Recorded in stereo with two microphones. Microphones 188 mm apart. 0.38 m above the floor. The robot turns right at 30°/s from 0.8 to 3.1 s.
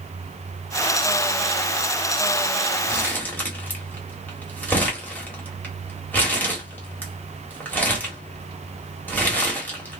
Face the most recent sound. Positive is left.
turn(degrees=10)  # may be behind; listen again after turning